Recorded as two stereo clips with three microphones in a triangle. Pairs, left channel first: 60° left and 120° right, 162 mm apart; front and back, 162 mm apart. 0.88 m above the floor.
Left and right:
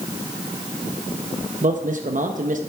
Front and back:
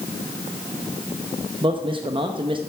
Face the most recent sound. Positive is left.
turn(degrees=-130)